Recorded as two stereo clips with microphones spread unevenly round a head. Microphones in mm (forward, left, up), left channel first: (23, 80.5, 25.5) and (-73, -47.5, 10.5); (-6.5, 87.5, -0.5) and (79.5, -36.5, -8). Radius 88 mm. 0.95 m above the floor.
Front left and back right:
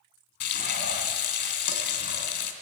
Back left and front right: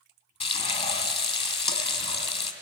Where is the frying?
75° left, 2.5 m.